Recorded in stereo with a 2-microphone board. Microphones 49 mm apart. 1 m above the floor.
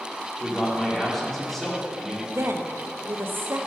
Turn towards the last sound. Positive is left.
turn(degrees=-50)  # may be behind; listen again after turning